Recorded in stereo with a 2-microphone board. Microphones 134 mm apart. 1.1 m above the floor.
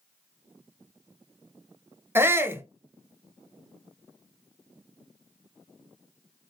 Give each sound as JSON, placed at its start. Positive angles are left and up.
{"t": 2.1, "sound": "a shout", "side_deg": -15, "distance_m": 0.7}